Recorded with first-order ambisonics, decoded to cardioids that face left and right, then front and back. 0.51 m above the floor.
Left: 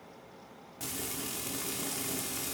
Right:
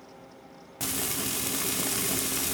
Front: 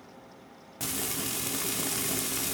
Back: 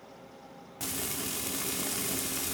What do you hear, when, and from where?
0.8 s frying: 75° right, 0.8 m